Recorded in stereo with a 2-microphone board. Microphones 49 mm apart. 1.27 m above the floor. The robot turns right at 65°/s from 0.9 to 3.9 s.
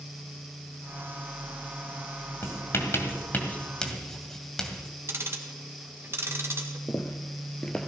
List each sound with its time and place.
2.4 s writing: 60° left (ahead or behind), 2 m; by 4.9 s 10° left (ahead or behind), 2 m
5.1 s ticking: 55° right (ahead or behind), 1.6 m
6.9 s footsteps: 50° left (ahead or behind), 2.0 m; by 7.9 s 5° left (ahead or behind), 1.3 m